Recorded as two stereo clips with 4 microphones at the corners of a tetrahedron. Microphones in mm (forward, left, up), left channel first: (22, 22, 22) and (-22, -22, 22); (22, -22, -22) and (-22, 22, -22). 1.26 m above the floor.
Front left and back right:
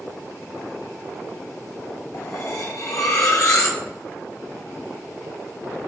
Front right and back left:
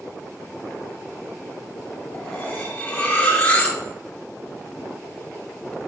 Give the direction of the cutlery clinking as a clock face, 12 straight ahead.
11 o'clock.